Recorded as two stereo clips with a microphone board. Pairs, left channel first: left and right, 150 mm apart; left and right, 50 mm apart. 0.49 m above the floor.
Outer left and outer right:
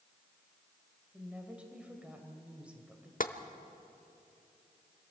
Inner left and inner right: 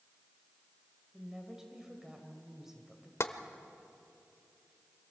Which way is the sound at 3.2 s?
65° left (ahead or behind).